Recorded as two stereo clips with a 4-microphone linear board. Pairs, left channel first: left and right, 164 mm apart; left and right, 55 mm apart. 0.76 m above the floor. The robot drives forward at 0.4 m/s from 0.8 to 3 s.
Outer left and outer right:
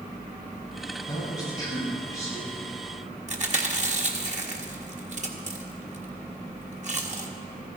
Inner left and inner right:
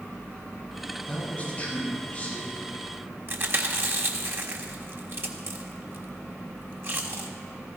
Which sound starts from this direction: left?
A man speaking, at 1.1 s.